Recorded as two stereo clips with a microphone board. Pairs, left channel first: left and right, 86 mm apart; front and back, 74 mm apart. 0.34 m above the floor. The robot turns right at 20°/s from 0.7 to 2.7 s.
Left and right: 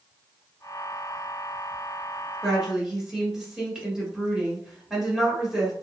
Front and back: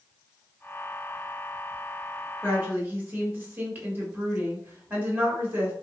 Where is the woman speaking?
170° right, 1.4 m; by 5.7 s 165° right, 1.4 m.